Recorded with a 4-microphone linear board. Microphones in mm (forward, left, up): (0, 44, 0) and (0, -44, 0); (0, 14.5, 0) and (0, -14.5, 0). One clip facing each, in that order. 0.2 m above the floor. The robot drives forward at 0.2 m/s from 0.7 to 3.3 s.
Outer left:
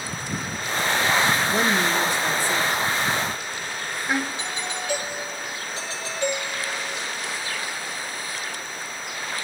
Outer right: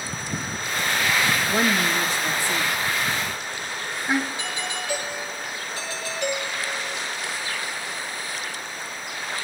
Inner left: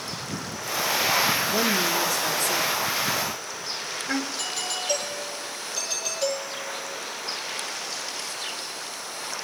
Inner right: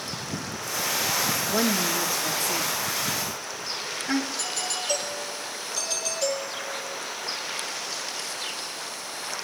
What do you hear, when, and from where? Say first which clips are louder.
1.5 s a woman speaking: outer left 1 dB, inner left 1 dB; 30° right (ahead or behind), 2.5 m; by 4.3 s 25° right (ahead or behind), 3 m
4.4 s a doorbell: even, even; 20° left (ahead or behind), 9 m